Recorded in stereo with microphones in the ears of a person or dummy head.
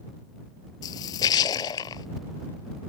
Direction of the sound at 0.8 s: 20° left (ahead or behind).